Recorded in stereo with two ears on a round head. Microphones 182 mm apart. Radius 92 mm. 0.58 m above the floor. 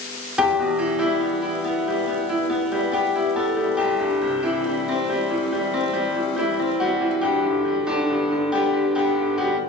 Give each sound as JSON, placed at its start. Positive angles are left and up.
{"t": 0.4, "sound": "a piano", "side_deg": -5, "distance_m": 0.9}